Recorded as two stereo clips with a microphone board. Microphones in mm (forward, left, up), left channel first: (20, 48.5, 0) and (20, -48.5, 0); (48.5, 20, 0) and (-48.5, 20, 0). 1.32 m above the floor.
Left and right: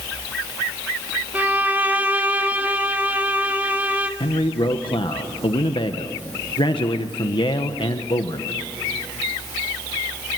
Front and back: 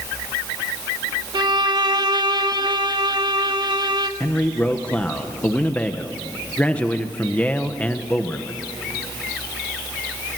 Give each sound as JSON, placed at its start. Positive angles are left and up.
{"t": 1.3, "sound": "a violin", "azimuth_deg": -155, "distance_m": 1.1}
{"t": 4.2, "sound": "a man speaking", "azimuth_deg": 70, "distance_m": 1.2}